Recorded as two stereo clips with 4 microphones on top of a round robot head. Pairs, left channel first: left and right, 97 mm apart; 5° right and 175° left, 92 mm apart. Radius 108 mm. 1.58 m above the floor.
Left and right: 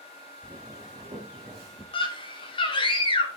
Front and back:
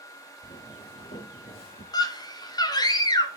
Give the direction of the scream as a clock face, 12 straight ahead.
11 o'clock.